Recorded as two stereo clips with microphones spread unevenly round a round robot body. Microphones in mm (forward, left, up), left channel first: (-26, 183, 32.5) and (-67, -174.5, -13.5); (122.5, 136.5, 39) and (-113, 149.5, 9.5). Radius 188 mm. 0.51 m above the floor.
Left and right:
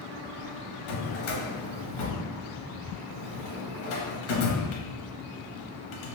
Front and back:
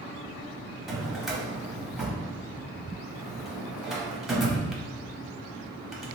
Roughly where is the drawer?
Left.